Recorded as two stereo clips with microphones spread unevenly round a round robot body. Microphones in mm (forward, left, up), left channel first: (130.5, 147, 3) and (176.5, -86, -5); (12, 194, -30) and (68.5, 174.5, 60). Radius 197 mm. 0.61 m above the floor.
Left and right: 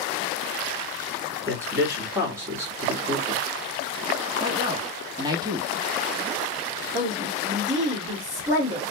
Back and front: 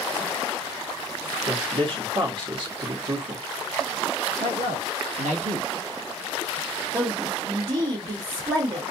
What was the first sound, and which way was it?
A man speaking, 135° right.